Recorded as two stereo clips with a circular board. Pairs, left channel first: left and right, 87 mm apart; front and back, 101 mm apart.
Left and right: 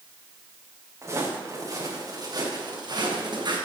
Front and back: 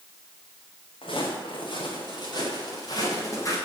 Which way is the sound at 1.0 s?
35° right.